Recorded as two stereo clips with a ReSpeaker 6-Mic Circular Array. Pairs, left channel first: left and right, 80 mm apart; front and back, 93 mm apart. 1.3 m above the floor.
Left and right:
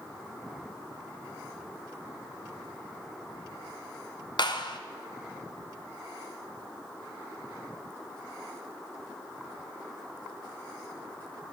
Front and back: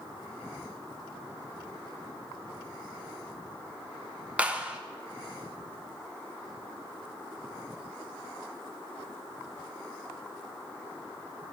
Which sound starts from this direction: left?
A clap, at 4.4 s.